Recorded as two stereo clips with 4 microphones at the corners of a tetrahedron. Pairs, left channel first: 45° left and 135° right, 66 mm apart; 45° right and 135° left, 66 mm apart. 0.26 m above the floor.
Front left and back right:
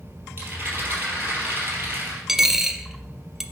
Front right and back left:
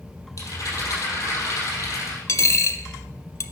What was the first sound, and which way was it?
A rattle, 75° right.